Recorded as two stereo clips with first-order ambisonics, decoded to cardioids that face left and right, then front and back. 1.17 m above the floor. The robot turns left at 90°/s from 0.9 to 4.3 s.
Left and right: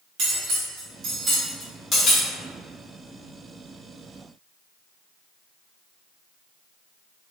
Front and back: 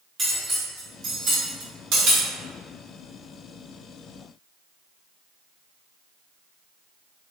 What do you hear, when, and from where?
0.2 s cutlery clinking: 115° right, 1.0 m; by 2.3 s 125° left, 1.0 m